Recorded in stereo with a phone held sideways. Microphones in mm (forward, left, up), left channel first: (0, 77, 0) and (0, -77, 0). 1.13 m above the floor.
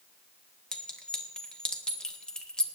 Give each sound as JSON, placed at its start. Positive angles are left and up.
{"t": 0.7, "sound": "a clink", "side_deg": 5, "distance_m": 1.7}